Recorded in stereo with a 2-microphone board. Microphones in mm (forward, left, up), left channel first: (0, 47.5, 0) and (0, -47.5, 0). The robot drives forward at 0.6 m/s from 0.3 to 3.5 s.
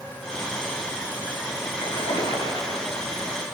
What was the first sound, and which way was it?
A splash, 80° left.